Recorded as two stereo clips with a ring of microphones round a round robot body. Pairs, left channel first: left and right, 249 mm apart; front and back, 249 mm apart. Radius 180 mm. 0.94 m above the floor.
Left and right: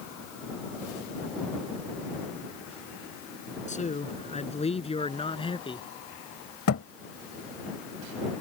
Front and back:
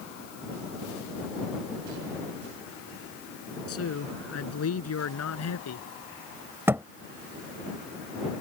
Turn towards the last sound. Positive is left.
turn(degrees=100)